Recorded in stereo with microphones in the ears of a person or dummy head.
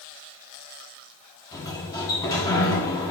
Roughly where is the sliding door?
Centre.